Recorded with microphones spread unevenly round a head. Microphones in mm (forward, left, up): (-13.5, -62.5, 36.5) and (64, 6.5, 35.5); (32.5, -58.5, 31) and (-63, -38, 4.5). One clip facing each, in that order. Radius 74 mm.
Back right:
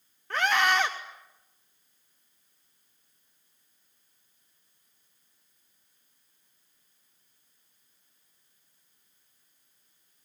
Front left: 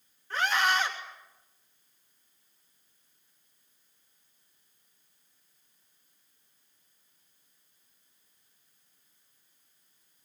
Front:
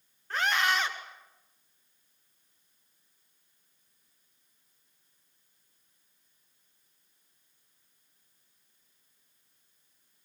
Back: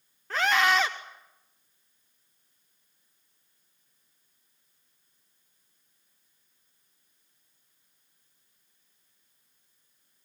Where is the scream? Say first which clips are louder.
Back right 2 dB, back 4 dB; 170° left, 1.2 m.